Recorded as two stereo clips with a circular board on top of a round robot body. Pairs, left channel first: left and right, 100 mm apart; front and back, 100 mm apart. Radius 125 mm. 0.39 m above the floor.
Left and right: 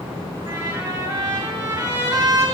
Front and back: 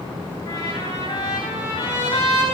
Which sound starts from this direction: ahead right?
A trumpet, at 0.5 s.